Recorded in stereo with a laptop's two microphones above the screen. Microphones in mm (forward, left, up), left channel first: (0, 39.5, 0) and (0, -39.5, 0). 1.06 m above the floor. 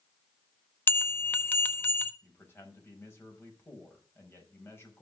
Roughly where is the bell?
Left.